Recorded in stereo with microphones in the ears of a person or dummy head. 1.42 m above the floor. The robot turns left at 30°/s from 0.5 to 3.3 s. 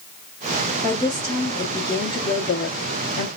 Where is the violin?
No violin in this recording.